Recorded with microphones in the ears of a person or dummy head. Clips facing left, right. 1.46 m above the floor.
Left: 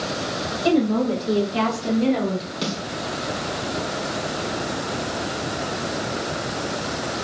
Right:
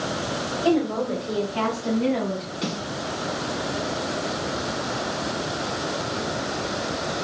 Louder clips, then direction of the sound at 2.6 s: Even; 50° left (ahead or behind).